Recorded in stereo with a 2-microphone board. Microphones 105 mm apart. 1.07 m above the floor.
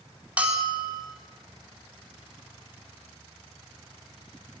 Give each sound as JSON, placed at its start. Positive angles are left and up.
{"t": 0.4, "sound": "a bell", "side_deg": -10, "distance_m": 3.5}